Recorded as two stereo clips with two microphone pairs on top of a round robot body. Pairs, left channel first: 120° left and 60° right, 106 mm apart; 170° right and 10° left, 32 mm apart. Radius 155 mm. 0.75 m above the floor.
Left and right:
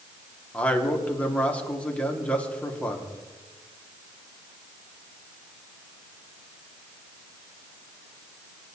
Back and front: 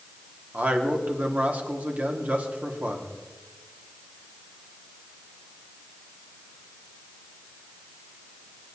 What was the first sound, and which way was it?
A man speaking, 45° left.